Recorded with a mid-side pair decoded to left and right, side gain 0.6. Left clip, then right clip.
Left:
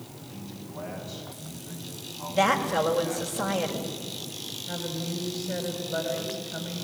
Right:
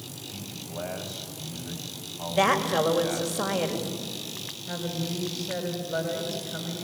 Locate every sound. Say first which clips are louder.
0.3 s a man speaking: right 3 dB; 40° right, 8 m
2.3 s a woman speaking: even; 10° right, 5 m
4.7 s a woman speaking: right 2 dB; 10° right, 7.5 m